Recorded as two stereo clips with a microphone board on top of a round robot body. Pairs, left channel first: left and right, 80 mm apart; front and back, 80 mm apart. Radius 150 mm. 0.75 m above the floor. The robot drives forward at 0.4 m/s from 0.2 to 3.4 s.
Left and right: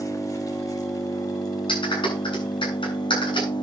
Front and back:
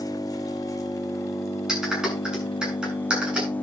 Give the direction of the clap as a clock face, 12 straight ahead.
9 o'clock.